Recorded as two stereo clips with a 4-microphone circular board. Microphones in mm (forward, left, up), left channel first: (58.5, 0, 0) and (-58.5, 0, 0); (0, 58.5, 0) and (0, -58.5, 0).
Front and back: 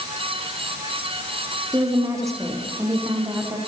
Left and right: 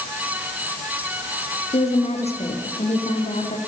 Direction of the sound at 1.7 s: 115° left.